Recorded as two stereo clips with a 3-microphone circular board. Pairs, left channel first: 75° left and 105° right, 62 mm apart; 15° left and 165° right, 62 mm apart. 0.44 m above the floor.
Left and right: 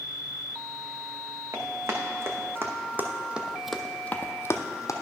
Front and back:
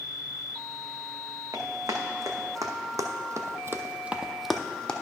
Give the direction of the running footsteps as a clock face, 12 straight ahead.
5 o'clock.